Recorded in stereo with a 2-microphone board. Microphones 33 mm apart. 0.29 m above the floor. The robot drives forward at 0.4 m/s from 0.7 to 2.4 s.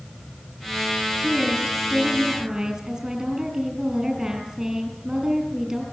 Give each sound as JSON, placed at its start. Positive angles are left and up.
{"t": 1.2, "sound": "a woman speaking", "side_deg": -15, "distance_m": 7.5}